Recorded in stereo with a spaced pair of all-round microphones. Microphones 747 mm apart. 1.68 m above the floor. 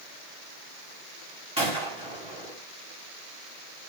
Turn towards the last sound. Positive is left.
turn(degrees=-5)  # may be behind; listen again after turning